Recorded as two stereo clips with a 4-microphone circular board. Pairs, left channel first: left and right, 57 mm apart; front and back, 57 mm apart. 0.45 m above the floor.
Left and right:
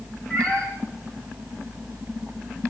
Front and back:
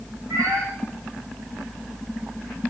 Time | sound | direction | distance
0.3 | a cat meowing | 155° left | 7 m